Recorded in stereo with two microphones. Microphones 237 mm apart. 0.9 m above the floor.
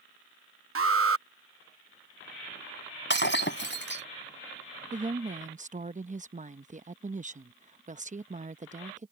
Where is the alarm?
65° right (ahead or behind).